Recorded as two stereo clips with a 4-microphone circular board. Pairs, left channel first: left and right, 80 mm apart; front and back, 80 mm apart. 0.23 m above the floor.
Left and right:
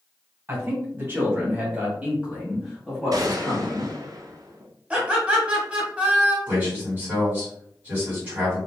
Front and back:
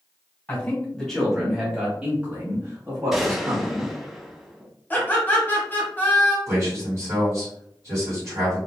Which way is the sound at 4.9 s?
35° right.